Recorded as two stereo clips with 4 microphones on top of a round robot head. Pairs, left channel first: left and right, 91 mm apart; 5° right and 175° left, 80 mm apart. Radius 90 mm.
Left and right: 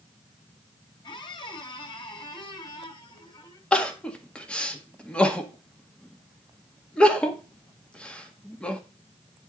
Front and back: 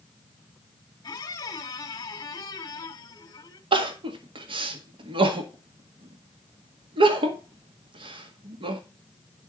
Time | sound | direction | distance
1.0 | a squeak | 35° left | 1.4 m
3.7 | crying | 170° left | 1.8 m